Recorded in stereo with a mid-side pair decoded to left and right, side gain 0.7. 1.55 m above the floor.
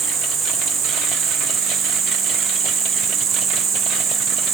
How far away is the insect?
About 5 m.